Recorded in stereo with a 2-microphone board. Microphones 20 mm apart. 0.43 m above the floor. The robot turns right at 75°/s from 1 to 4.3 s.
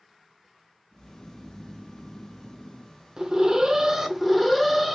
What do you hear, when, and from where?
0.9 s snoring: 15° right, 1.6 m; by 3.0 s 130° left, 1.6 m
3.2 s an alarm: 100° right, 0.7 m; by 5.0 s 15° right, 0.7 m